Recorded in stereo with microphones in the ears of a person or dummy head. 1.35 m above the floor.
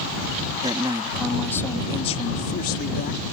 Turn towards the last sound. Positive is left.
turn(degrees=70)  # may be behind; listen again after turning